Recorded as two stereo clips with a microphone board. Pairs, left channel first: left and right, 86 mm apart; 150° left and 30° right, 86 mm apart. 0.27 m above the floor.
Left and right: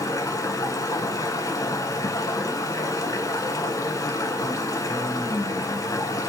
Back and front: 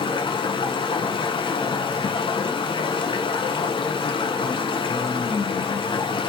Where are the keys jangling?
I don't hear keys jangling.